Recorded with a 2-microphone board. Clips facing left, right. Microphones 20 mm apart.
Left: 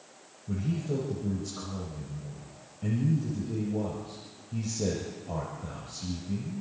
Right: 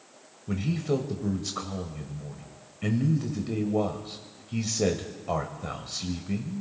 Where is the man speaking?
55° right (ahead or behind), 1.3 m.